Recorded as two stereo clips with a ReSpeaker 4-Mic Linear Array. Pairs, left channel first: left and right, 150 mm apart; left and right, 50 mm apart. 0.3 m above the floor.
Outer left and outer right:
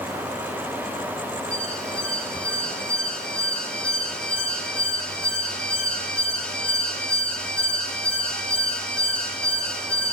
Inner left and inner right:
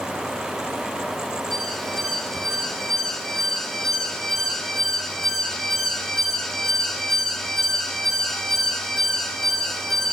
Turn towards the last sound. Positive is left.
turn(degrees=5)  # may be behind; listen again after turning